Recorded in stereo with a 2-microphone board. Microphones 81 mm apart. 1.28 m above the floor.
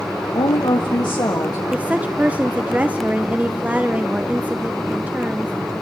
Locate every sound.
0.3 s a woman speaking: 85° left, 1.3 m; by 1.6 s 50° left (ahead or behind), 1.9 m
1.7 s a woman speaking: 20° right (ahead or behind), 1.1 m